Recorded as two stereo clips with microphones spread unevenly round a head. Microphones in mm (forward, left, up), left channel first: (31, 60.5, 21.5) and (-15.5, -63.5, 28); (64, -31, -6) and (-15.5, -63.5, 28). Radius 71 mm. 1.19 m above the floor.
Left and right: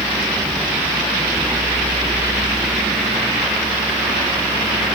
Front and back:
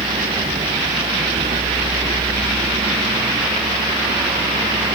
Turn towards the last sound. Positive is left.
turn(degrees=160)